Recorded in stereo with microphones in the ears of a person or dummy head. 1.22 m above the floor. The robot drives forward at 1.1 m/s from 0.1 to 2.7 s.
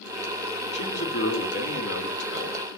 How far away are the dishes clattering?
No dishes clattering in this recording.